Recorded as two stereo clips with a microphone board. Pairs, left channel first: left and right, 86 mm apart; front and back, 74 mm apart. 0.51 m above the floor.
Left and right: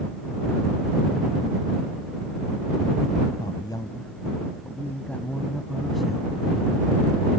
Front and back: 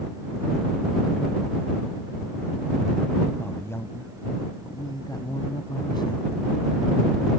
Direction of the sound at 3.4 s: 60° left.